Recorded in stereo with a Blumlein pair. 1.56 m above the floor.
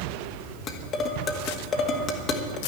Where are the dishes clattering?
25° left, 1.9 m.